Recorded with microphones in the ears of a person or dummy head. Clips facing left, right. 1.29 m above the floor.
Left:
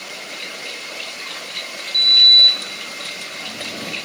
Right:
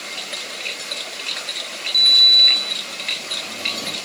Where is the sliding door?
5° left (ahead or behind), 2.5 m.